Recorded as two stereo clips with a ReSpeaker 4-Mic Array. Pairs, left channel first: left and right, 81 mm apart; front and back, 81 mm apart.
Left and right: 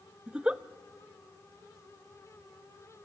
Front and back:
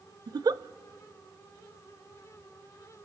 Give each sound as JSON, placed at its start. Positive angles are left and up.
{"t": 0.3, "sound": "a giggle", "azimuth_deg": -165, "distance_m": 0.6}